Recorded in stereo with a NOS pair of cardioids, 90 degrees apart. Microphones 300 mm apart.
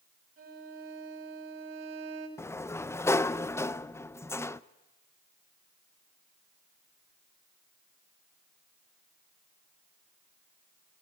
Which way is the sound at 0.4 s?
45° right.